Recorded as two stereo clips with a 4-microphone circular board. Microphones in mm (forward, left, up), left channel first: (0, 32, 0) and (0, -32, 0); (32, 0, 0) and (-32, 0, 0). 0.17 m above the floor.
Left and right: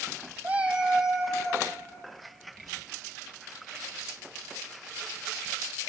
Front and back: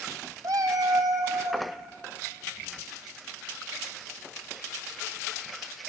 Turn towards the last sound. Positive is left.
turn(degrees=180)